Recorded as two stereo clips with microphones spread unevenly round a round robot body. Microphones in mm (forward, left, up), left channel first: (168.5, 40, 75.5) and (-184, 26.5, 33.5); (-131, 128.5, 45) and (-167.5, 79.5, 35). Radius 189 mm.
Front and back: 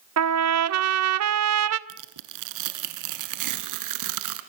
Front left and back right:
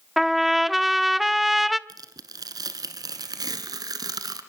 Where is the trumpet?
150° left, 0.9 m.